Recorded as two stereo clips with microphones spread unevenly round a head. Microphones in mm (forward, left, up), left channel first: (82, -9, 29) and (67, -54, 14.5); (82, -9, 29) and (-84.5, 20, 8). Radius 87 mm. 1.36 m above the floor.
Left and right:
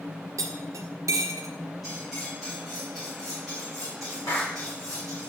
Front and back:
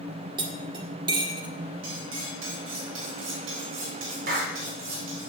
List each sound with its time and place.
0.4 s cutlery clinking: 125° right, 1.5 m
1.8 s cutlery clinking: 160° left, 3.5 m
4.3 s a clap: 135° left, 3 m